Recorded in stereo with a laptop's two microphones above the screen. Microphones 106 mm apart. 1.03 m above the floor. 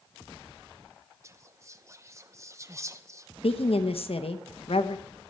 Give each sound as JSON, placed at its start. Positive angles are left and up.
{"t": 1.2, "sound": "whispering", "side_deg": -30, "distance_m": 0.7}
{"t": 3.4, "sound": "a woman speaking", "side_deg": 65, "distance_m": 0.8}